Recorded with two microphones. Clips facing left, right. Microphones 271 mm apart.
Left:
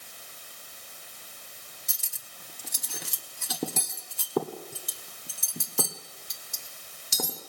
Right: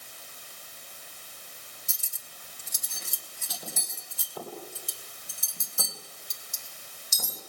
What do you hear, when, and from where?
1.9 s cutlery clinking: 75° left (ahead or behind), 1.5 m